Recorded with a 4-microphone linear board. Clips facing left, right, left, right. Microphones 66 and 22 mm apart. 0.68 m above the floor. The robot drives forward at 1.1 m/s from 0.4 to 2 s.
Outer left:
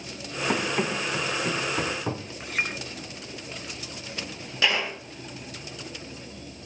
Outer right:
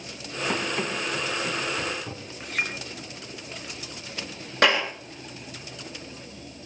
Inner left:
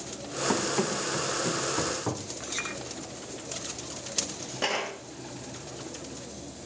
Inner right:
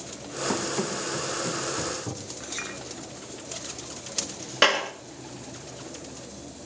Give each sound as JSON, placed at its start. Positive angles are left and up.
{"t": 0.5, "sound": "running footsteps", "side_deg": 10, "distance_m": 4.0}
{"t": 2.4, "sound": "a clink", "side_deg": 5, "distance_m": 6.5}
{"t": 4.6, "sound": "a clap", "side_deg": -60, "distance_m": 9.0}